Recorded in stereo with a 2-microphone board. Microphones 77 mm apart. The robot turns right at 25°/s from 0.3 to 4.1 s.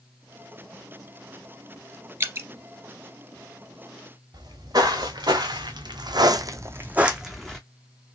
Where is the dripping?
30° right (ahead or behind), 0.5 m; by 2.5 s 35° right (ahead or behind), 0.5 m.